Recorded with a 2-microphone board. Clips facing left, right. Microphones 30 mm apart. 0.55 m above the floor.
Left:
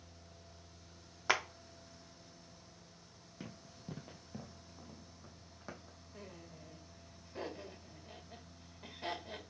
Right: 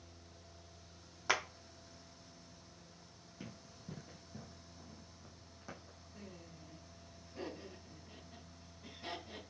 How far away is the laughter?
About 2.0 m.